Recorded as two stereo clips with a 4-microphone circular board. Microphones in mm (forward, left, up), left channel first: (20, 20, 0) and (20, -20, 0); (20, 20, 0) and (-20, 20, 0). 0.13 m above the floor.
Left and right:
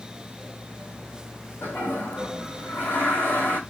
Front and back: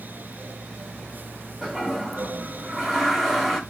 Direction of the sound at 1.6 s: 85° left.